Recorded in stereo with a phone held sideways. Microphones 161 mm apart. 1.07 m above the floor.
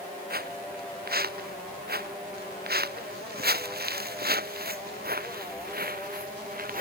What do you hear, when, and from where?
0.3 s footsteps: 75° right (ahead or behind); by 6.8 s 65° right (ahead or behind)